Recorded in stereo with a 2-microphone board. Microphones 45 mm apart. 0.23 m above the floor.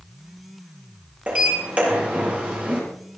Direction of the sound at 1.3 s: 30° right (ahead or behind).